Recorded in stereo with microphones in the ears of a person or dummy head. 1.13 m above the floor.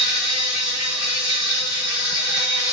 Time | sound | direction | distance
0.0 | an insect | 30° right (ahead or behind) | 1.1 m